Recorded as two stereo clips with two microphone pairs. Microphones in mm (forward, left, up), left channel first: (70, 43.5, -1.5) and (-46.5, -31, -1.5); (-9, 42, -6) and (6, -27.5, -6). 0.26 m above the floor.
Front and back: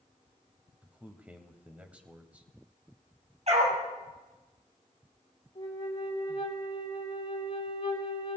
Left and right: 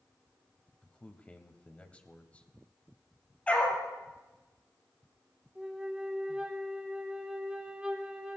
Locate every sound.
0.8 s a man speaking: 145° left, 1.0 m
3.5 s a dog barking: 175° left, 3.5 m
5.5 s a flute: 5° right, 1.3 m